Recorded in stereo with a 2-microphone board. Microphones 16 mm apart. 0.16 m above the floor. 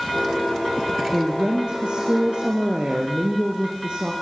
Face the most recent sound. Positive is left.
turn(degrees=-70)  # may be behind; listen again after turning